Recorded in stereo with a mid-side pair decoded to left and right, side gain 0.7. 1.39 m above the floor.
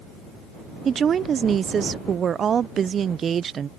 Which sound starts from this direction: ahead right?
A woman speaking, at 0.8 s.